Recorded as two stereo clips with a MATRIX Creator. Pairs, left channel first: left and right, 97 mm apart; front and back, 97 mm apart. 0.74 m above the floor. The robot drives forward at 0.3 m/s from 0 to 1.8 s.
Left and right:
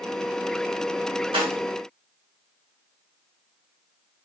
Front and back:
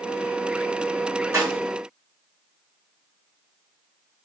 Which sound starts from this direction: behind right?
A snare drum, at 1.3 s.